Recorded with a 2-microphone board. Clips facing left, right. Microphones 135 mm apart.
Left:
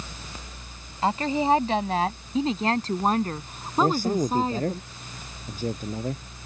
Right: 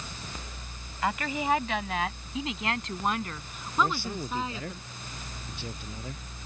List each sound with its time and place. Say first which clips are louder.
1.0 s a woman speaking: left 6 dB; 30° left (ahead or behind); by 4.8 s 40° left (ahead or behind)
3.8 s a man speaking: left 7 dB; 45° left (ahead or behind)